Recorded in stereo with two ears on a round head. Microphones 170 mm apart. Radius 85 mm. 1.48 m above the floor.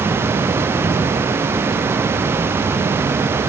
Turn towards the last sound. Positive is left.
No sound to turn to.